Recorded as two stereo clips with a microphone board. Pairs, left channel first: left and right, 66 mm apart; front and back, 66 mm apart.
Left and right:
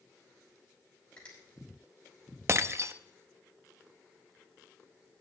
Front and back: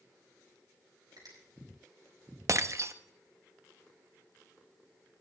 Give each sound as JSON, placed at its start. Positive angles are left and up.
{"t": 1.2, "sound": "a finger snap", "azimuth_deg": 165, "distance_m": 6.5}
{"t": 2.5, "sound": "breaking glass", "azimuth_deg": -135, "distance_m": 0.6}